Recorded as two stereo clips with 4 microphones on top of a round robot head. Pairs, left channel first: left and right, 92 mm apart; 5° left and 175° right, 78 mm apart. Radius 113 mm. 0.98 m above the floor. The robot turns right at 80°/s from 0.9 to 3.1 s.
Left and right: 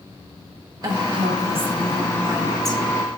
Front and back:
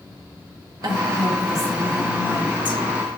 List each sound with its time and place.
0.8 s a woman speaking: 135° right, 1.1 m; by 2.8 s 20° left, 1.1 m